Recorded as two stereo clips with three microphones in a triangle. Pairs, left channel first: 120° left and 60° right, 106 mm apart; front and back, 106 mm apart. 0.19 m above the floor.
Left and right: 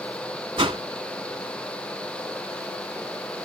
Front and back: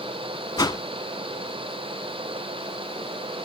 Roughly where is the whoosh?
Ahead right.